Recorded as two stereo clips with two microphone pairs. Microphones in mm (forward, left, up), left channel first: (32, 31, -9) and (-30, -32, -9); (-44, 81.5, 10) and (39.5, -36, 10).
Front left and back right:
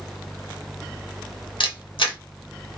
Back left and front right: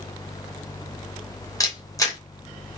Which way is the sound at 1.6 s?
60° left.